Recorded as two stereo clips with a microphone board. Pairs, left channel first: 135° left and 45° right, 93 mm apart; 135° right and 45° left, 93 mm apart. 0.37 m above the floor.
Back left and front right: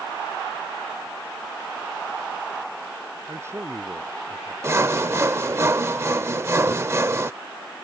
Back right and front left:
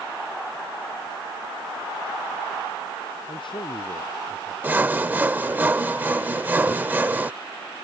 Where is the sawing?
10° right.